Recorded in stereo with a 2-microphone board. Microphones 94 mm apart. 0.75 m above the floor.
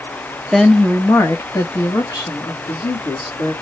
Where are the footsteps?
No footsteps in this recording.